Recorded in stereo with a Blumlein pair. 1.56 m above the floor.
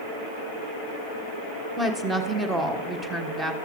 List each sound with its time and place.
1.8 s a woman speaking: 10° right, 1.3 m